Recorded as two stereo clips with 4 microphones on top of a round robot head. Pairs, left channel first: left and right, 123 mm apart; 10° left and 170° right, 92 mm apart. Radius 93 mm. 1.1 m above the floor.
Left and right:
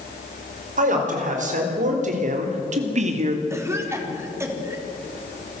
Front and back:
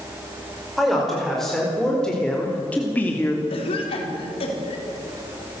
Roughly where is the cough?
Ahead.